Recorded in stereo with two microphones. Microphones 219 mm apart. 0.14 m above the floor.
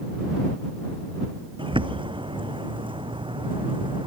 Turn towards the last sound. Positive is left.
turn(degrees=-20)  # may be behind; listen again after turning